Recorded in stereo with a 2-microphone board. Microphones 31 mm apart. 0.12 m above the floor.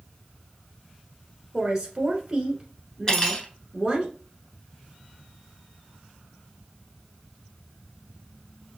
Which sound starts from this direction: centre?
A woman speaking, at 1.5 s.